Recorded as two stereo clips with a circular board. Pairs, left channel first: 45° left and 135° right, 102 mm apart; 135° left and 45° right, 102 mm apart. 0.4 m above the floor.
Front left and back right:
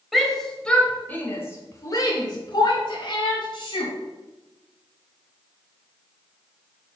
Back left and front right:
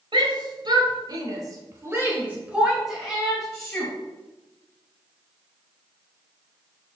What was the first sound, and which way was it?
A shout, 45° right.